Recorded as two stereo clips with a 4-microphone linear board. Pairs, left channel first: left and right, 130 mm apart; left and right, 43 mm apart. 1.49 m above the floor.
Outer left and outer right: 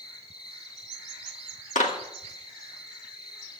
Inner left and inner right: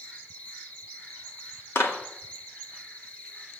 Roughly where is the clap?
Left.